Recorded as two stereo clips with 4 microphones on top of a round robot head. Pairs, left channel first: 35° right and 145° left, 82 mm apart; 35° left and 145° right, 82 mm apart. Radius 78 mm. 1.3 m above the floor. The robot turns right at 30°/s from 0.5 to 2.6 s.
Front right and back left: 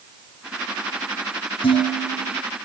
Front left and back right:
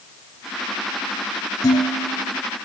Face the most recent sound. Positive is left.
turn(degrees=10)